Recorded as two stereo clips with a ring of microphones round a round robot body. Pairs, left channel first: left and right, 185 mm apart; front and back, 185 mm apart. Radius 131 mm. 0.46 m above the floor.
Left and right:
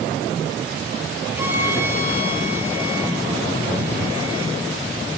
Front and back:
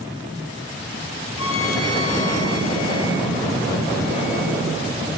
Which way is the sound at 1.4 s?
10° right.